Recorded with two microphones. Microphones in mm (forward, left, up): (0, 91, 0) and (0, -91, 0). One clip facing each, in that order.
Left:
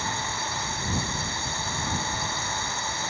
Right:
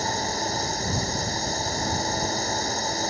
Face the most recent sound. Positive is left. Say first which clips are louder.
# right 5 dB
turn(degrees=-40)  # may be behind; listen again after turning